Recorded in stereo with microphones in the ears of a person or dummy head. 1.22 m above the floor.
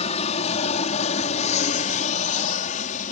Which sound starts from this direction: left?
An aircraft, at 0.0 s.